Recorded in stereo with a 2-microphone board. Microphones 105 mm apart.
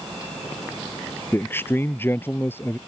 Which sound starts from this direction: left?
A man speaking, at 1.3 s.